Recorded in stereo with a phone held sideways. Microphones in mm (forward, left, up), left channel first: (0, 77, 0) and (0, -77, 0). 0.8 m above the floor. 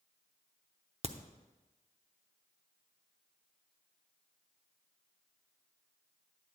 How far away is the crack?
About 0.7 m.